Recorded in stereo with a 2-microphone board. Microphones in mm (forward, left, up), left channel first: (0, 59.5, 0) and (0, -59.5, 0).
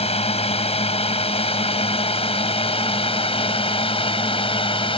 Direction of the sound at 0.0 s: 60° left (ahead or behind).